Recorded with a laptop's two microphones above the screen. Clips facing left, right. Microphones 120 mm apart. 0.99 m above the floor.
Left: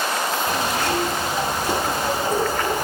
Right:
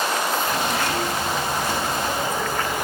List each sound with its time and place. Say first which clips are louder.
0.5 s a zipper: left 1 dB; 35° left (ahead or behind), 1.4 m